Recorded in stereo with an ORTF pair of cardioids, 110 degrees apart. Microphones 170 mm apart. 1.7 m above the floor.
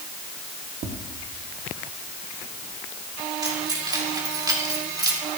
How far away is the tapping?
About 1.9 m.